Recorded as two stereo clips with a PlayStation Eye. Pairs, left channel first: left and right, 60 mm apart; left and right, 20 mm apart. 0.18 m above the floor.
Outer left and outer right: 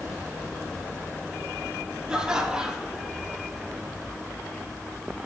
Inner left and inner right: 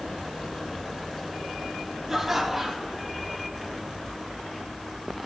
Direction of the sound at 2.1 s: 15° right (ahead or behind).